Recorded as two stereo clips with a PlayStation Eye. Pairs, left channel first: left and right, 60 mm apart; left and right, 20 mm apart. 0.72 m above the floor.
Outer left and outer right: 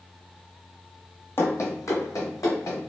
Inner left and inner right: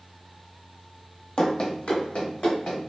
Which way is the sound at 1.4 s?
40° left (ahead or behind).